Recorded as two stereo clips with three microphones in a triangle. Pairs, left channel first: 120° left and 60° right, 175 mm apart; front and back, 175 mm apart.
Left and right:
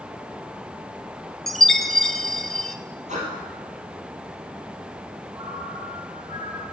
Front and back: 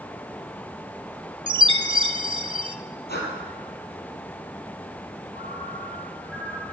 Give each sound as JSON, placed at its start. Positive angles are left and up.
{"t": 1.5, "sound": "a chime", "azimuth_deg": -155, "distance_m": 0.7}
{"t": 3.1, "sound": "breathing", "azimuth_deg": -15, "distance_m": 3.5}
{"t": 5.3, "sound": "a ringtone", "azimuth_deg": 10, "distance_m": 5.5}